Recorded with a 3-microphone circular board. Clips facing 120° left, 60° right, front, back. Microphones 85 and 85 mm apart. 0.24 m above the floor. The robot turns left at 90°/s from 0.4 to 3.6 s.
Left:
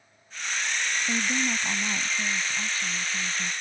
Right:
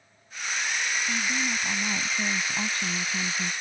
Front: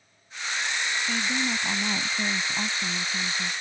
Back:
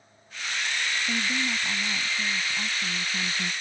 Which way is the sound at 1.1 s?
105° left.